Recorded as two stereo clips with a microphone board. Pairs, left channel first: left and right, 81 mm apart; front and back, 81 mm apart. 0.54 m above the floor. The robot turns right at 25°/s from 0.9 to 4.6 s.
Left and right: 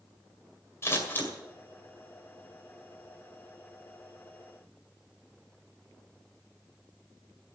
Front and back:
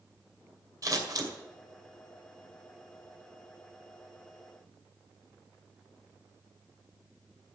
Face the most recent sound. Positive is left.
turn(degrees=-125)